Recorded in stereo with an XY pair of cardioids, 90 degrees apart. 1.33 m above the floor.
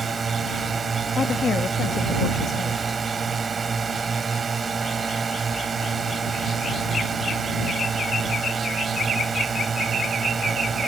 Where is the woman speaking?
50° left.